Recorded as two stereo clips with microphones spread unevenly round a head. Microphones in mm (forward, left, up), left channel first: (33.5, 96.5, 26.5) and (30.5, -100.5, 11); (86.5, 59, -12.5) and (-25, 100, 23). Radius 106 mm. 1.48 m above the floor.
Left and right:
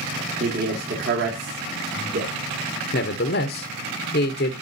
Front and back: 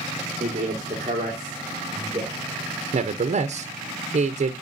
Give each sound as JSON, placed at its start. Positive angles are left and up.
{"t": 0.4, "sound": "a man speaking", "azimuth_deg": -140, "distance_m": 1.6}
{"t": 2.9, "sound": "a man speaking", "azimuth_deg": 135, "distance_m": 0.8}